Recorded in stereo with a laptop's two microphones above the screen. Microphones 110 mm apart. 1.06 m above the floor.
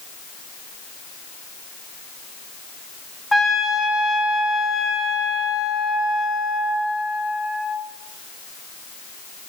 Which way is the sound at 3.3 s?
Centre (ahead or behind).